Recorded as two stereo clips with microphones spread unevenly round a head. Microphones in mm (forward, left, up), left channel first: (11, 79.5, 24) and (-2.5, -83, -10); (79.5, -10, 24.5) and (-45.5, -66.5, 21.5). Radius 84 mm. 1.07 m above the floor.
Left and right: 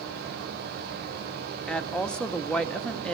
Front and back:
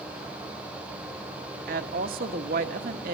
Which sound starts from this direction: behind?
A woman speaking, at 1.7 s.